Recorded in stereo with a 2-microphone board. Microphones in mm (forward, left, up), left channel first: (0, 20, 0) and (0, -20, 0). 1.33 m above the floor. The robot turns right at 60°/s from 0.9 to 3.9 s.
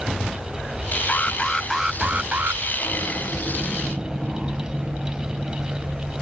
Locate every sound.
1.1 s an alarm: 150° left; by 2.6 s 120° right